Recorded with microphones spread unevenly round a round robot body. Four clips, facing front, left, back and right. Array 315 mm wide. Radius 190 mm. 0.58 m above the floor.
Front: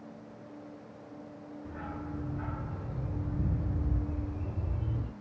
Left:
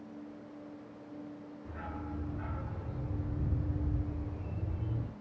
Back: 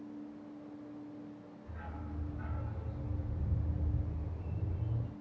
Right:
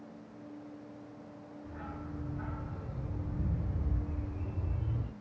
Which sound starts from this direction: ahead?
A dog barking, at 1.6 s.